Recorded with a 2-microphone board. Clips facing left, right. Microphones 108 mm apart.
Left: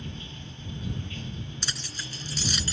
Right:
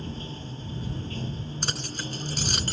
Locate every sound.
0.0 s running water: 35° right (ahead or behind)
1.6 s keys jangling: 45° right (ahead or behind)